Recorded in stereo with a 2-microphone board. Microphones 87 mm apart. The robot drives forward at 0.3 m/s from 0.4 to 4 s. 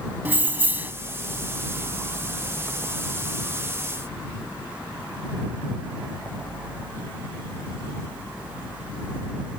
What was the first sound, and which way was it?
Keys jangling, 20° right (ahead or behind).